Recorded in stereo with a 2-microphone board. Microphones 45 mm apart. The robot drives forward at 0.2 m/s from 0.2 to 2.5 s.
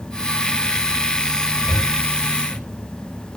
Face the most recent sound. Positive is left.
turn(degrees=-25)  # may be behind; listen again after turning